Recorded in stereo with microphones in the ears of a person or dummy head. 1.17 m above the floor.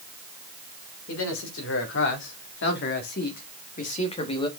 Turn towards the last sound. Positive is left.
turn(degrees=25)  # may be behind; listen again after turning